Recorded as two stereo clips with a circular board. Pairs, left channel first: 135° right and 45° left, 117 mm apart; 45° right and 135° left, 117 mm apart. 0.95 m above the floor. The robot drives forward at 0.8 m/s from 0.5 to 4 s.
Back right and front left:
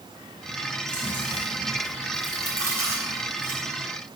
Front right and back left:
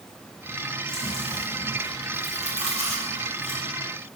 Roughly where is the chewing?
Left.